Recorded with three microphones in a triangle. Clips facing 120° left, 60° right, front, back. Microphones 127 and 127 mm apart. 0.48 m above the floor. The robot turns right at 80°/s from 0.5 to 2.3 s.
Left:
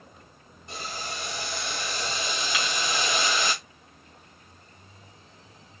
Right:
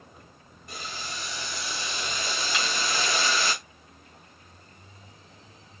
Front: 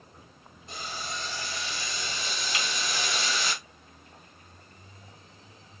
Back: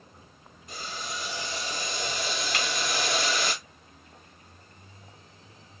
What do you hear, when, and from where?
0.7 s boiling: 55° left, 1.9 m; by 3.5 s 175° right, 1.9 m
2.5 s breaking glass: 150° right, 1.8 m